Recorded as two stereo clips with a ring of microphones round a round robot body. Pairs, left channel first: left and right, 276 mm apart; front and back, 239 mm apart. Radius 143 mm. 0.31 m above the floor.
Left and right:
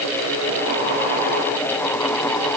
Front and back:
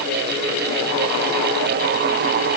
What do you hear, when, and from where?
Only background noise.